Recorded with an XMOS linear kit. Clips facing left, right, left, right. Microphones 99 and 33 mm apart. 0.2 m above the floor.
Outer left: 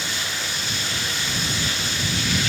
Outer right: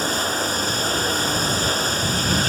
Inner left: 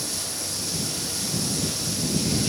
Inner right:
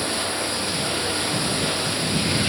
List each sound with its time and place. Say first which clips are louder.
0.0 s running water: outer right 8 dB, inner right 8 dB; 40° right (ahead or behind)